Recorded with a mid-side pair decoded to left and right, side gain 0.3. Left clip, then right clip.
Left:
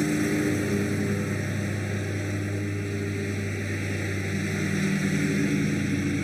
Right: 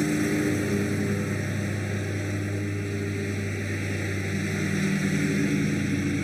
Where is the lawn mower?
Straight ahead.